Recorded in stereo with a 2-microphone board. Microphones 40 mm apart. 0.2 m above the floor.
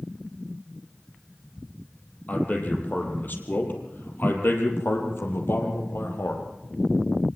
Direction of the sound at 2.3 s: 40° left (ahead or behind).